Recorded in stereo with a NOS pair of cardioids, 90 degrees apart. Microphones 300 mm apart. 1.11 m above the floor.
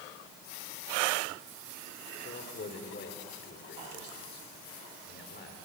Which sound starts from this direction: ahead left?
A man speaking, at 2.2 s.